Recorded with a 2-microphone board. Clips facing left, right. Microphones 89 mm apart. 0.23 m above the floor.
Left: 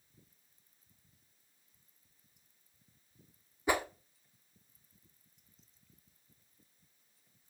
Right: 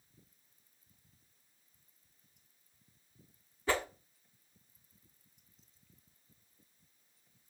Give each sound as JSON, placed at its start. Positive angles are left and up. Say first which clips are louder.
{"t": 3.7, "sound": "a whoosh", "louder": "left 1 dB", "side_deg": 15, "distance_m": 0.7}